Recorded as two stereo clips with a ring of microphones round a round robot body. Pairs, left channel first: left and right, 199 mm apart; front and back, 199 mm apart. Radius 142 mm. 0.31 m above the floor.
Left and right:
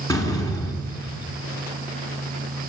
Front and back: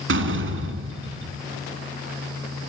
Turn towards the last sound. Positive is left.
turn(degrees=170)